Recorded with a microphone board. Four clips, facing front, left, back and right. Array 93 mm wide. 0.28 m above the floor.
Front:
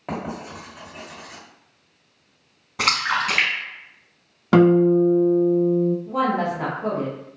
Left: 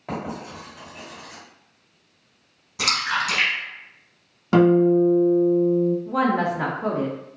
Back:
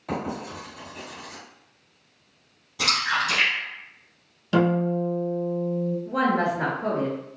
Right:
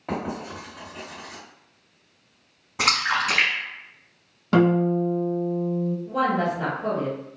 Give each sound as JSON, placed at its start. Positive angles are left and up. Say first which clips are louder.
{"t": 0.1, "sound": "writing", "louder": "right 1 dB, even", "azimuth_deg": 0, "distance_m": 1.9}
{"t": 2.8, "sound": "a splash", "louder": "right 1 dB, front 3 dB", "azimuth_deg": -35, "distance_m": 0.8}
{"t": 4.5, "sound": "a guitar", "louder": "left 4 dB, front 8 dB", "azimuth_deg": 10, "distance_m": 0.5}
{"t": 6.1, "sound": "a woman speaking", "louder": "left 2 dB, front 1 dB", "azimuth_deg": 90, "distance_m": 1.6}